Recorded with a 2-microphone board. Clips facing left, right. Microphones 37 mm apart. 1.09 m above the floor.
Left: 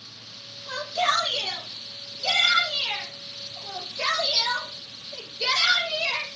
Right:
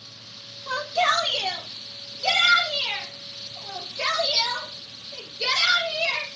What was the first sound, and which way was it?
A shout, 75° right (ahead or behind).